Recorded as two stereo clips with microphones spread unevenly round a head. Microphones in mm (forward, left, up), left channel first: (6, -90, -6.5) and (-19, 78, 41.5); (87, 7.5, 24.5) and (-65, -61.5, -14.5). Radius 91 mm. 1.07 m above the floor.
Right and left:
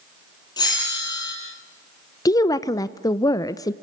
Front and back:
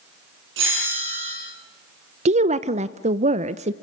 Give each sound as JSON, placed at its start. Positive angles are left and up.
{"t": 0.6, "sound": "a bell", "azimuth_deg": -150, "distance_m": 9.5}
{"t": 2.2, "sound": "a woman speaking", "azimuth_deg": -135, "distance_m": 0.7}